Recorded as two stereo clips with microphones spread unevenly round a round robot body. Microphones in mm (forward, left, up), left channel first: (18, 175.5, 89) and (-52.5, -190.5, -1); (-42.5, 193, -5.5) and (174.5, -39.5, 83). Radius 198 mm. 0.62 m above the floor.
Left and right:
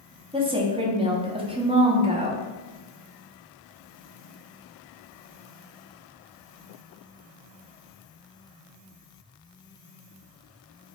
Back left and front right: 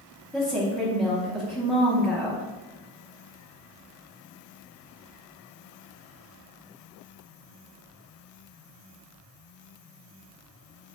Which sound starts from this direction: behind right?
A woman speaking, at 0.3 s.